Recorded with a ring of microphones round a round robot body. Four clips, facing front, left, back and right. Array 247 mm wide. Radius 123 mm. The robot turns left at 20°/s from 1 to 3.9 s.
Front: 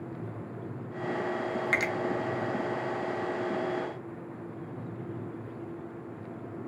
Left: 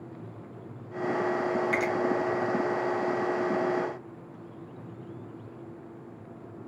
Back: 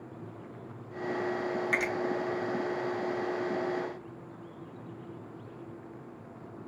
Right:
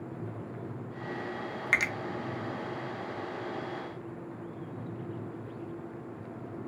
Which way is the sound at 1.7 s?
55° right.